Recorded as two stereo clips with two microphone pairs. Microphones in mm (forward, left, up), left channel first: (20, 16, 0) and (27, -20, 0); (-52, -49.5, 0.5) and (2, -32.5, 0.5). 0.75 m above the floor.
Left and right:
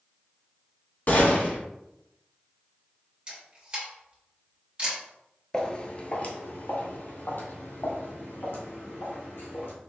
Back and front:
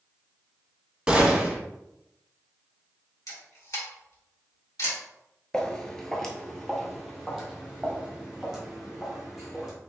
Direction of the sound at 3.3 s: 140° right.